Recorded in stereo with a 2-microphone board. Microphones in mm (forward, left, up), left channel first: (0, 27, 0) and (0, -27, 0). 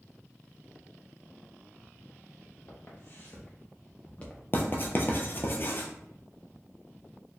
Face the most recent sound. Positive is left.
turn(degrees=45)  # may be behind; listen again after turning